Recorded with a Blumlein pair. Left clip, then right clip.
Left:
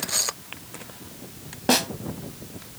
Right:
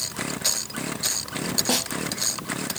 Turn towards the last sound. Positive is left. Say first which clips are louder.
# left 6 dB
turn(degrees=15)